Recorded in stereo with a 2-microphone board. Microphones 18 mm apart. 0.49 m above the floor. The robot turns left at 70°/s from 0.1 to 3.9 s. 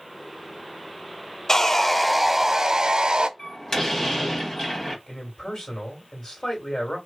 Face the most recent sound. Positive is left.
turn(degrees=40)  # may be behind; listen again after turning